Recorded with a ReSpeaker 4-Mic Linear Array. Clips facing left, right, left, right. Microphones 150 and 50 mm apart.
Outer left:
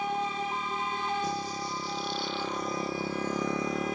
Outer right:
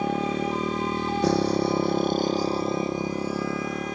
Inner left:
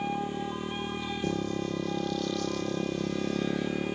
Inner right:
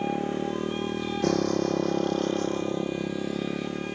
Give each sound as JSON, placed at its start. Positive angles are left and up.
{"t": 0.0, "sound": "a motorcycle", "side_deg": -75}